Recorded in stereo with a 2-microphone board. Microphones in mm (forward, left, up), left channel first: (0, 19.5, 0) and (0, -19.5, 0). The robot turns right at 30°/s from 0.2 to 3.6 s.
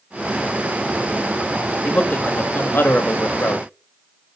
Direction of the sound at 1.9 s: 45° left.